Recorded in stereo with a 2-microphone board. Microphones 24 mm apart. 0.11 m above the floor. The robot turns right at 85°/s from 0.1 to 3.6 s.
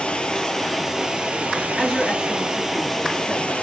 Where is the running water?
130° left, 1.1 m; by 3.6 s 70° left, 1.1 m.